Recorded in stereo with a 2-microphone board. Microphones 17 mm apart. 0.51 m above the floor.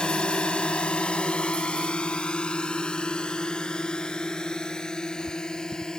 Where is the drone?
60° left (ahead or behind); by 6.0 s 35° left (ahead or behind).